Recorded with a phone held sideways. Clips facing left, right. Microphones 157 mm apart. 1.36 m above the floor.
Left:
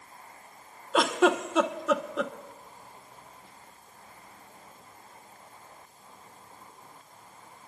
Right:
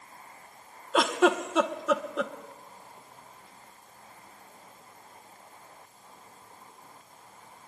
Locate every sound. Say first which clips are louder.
0.9 s a giggle: even; centre (ahead or behind), 0.8 m